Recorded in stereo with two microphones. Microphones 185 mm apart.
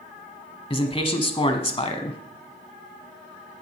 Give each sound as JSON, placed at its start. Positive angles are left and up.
{"t": 0.7, "sound": "a man speaking", "side_deg": 30, "distance_m": 1.3}